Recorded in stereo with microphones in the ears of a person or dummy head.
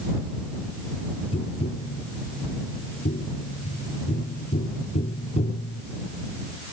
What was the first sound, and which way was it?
Tapping, 35° left (ahead or behind).